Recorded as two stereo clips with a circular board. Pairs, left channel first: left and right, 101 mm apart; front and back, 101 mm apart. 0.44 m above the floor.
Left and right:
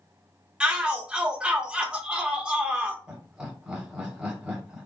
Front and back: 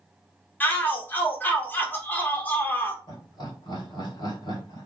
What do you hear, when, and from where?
0.6 s a shout: 25° right, 0.9 m
3.1 s laughter: 10° right, 2 m